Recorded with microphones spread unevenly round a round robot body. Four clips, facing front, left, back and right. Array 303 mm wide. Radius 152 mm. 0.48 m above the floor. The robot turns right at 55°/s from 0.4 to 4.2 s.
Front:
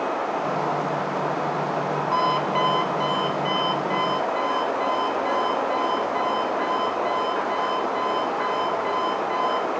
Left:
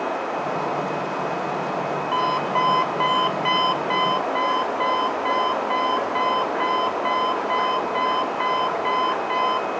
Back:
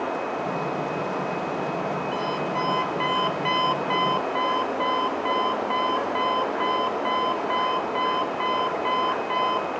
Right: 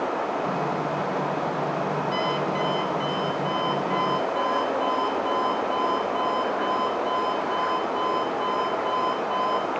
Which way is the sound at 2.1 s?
35° left.